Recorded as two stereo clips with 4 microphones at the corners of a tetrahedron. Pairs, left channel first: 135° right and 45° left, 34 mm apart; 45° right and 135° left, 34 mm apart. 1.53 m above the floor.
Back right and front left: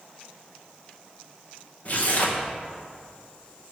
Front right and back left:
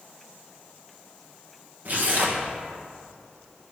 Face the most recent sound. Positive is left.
turn(degrees=175)